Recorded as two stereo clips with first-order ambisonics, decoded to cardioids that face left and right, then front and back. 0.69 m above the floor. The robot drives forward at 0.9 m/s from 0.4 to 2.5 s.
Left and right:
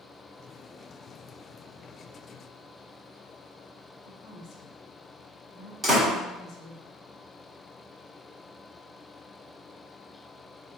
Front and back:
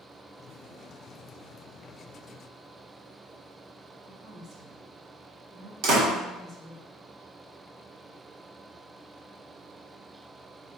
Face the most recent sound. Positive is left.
turn(degrees=-170)